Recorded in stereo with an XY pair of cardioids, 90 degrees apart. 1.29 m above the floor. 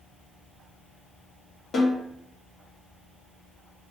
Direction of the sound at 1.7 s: 55° left.